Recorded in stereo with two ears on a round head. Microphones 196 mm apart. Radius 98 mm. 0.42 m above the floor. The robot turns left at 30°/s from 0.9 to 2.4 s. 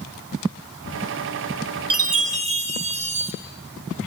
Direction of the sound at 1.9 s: 45° right (ahead or behind).